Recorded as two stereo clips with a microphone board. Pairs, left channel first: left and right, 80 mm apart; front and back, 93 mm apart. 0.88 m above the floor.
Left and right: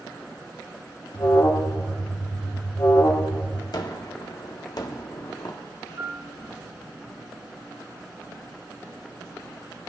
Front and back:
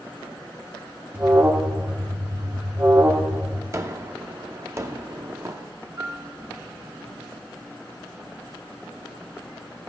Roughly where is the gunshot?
Behind left.